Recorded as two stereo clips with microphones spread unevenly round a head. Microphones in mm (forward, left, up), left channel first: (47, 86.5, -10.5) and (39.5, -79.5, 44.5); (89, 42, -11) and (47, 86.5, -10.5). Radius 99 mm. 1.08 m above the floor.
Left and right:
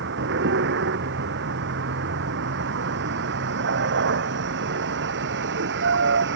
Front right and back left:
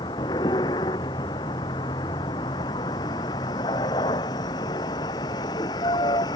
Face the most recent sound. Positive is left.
turn(degrees=-85)